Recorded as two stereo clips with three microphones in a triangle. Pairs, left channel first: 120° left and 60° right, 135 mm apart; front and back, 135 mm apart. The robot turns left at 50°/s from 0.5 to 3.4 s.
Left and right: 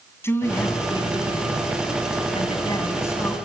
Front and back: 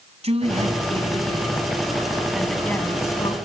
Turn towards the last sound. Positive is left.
turn(degrees=40)